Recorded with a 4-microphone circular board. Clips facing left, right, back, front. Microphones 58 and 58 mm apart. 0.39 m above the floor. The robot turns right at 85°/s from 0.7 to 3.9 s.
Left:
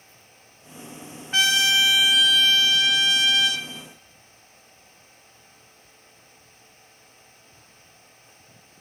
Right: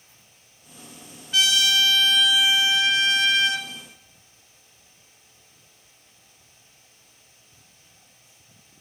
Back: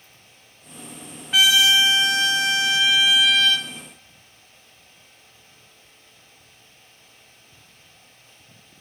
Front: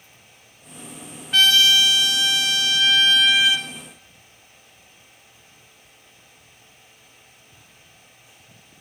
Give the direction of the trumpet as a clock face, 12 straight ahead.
9 o'clock.